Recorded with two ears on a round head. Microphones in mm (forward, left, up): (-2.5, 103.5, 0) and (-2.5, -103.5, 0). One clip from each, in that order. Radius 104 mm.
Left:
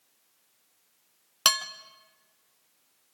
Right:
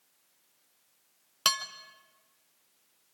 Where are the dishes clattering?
10° left (ahead or behind), 0.8 m.